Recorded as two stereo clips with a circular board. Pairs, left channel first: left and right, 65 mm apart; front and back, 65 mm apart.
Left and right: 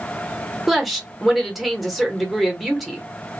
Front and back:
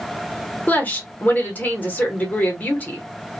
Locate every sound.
0.7 s a woman speaking: 5° right, 0.9 m